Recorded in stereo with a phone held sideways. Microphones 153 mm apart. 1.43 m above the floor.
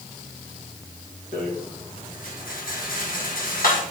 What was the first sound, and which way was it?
A rattle, 80° left.